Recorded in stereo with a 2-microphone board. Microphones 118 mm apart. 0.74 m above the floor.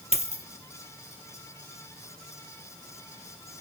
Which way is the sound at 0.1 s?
65° right (ahead or behind).